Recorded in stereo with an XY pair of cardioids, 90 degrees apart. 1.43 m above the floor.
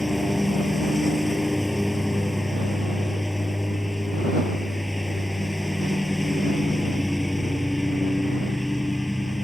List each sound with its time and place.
0.0 s a lawn mower: 10° left